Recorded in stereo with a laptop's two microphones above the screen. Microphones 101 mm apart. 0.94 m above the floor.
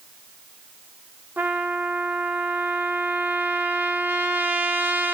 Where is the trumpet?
20° right (ahead or behind), 1.3 m.